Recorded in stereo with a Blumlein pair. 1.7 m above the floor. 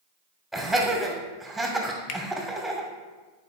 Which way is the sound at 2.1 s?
40° left.